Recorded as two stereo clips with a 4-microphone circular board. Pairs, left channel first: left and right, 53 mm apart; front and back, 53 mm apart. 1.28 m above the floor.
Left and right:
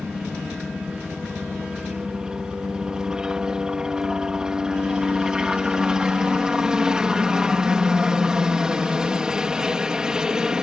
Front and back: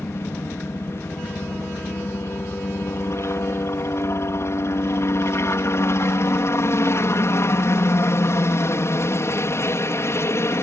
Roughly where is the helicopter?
Ahead.